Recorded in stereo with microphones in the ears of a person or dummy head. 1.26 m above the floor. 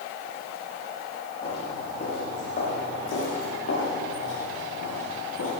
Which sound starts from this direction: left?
Footsteps, at 1.4 s.